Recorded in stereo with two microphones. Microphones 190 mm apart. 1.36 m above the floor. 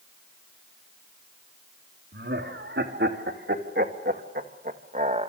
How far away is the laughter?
About 3.5 m.